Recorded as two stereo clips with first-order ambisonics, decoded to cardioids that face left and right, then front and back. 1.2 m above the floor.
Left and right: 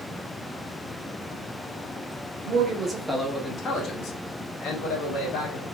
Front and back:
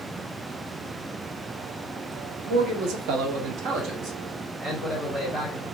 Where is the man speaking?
140° right, 0.7 m; by 5.7 s 110° left, 1.6 m.